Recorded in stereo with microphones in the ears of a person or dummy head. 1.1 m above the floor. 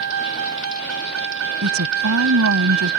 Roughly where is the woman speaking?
Right.